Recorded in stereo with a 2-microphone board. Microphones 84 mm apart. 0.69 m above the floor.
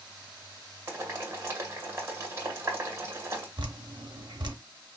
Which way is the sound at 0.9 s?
30° right (ahead or behind).